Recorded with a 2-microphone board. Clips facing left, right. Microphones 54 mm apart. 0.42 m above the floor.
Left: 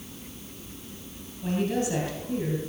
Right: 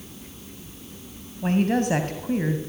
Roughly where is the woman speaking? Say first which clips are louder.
Right 5 dB; right.